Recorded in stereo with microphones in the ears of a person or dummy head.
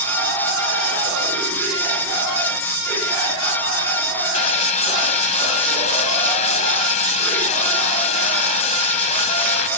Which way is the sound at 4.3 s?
45° left (ahead or behind).